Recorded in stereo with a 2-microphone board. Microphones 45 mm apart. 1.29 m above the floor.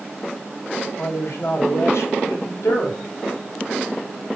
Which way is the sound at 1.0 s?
75° left (ahead or behind).